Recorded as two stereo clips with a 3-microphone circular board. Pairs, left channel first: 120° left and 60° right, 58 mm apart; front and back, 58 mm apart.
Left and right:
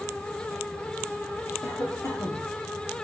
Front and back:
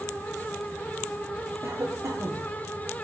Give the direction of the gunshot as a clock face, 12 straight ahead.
I don't hear a gunshot.